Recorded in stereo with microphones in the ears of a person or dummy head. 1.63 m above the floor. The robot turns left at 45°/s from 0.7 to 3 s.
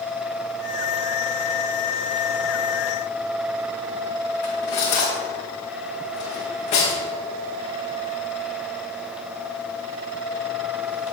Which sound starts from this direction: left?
Cutlery clinking, at 4.4 s.